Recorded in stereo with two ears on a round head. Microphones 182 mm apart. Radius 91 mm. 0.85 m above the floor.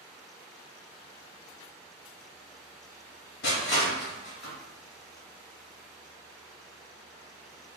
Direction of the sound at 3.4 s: 55° left (ahead or behind).